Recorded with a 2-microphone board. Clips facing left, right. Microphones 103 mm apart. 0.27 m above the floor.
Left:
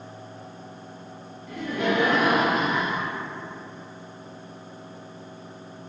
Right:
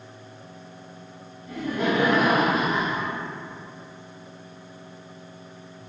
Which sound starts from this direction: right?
Laughter, at 1.5 s.